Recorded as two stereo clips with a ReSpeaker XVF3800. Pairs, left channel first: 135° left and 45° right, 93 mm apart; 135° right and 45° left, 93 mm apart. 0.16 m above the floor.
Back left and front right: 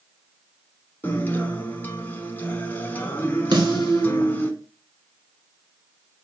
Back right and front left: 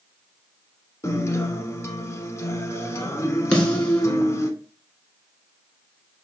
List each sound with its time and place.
1.0 s a guitar: 170° right, 0.6 m
3.5 s a snare drum: 55° right, 1.2 m